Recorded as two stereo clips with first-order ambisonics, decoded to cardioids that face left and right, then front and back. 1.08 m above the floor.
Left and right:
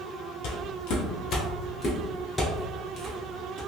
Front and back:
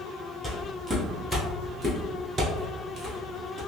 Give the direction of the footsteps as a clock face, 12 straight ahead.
9 o'clock.